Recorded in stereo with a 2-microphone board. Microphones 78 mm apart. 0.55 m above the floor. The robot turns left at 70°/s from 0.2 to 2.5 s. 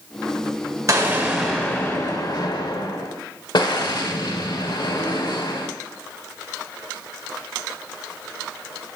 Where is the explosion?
140° right, 0.9 m; by 5.7 s 105° left, 0.9 m.